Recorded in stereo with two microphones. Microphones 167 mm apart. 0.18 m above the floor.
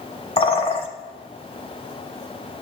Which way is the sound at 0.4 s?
35° left (ahead or behind).